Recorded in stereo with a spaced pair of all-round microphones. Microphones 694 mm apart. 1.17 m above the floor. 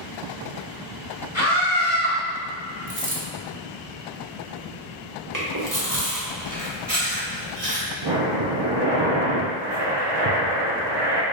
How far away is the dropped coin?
About 0.7 m.